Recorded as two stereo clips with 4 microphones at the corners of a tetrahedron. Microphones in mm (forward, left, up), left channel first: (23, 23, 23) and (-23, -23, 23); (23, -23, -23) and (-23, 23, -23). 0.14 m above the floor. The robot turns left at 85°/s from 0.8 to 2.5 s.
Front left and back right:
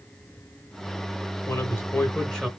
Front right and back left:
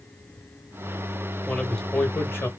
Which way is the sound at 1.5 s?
50° left.